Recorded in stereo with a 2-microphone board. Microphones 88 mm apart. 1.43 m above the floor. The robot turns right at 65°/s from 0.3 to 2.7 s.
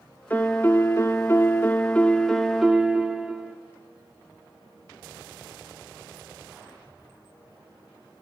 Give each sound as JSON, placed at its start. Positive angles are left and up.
{"t": 0.3, "sound": "a piano", "azimuth_deg": 40, "distance_m": 1.0}